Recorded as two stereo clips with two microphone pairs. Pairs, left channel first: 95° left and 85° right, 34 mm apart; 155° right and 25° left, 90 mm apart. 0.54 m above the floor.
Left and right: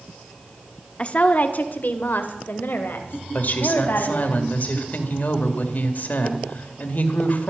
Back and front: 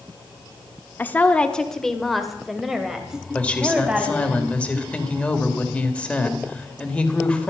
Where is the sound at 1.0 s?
145° left, 1.1 m; by 4.3 s 105° left, 4 m.